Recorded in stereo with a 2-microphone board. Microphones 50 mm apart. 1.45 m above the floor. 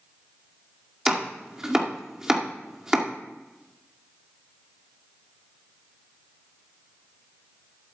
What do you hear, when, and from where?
1.1 s chopping: 15° right (ahead or behind), 2.0 m